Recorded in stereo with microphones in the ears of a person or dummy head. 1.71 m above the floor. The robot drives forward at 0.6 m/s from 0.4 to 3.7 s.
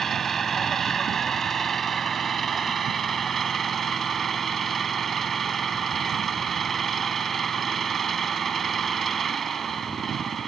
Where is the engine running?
Centre (ahead or behind).